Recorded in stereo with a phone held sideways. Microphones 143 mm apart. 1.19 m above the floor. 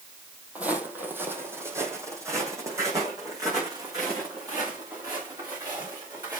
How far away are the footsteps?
About 2 m.